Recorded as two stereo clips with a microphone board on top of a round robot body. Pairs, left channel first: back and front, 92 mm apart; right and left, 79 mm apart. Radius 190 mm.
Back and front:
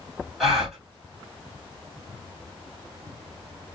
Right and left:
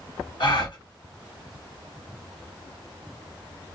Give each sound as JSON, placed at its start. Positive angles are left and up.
{"t": 0.4, "sound": "a gasp", "azimuth_deg": -90, "distance_m": 2.0}